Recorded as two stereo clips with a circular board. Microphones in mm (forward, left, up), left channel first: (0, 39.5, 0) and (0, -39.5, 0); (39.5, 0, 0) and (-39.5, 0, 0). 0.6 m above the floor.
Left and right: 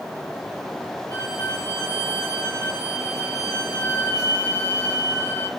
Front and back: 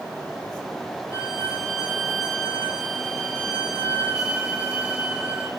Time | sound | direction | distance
1.1 | a violin | 110° right | 2.5 m